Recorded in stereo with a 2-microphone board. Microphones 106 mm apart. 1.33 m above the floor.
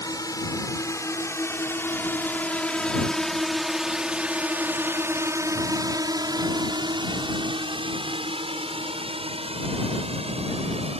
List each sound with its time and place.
0.0 s a drone: 35° left (ahead or behind); by 11.0 s 75° right (ahead or behind)